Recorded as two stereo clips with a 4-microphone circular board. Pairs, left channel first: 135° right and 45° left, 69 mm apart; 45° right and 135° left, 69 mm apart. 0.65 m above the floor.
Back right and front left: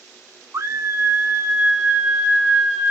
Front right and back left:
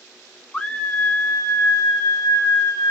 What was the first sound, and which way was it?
A scream, 30° left.